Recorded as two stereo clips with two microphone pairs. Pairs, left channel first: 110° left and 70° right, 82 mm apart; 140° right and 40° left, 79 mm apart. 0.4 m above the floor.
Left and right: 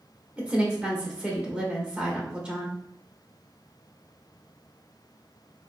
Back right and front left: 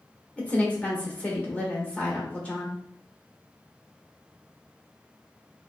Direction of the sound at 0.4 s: 115° right.